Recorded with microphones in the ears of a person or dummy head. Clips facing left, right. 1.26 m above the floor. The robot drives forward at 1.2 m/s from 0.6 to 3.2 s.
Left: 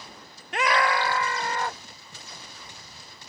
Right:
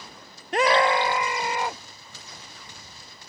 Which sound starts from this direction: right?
A scream, at 0.5 s.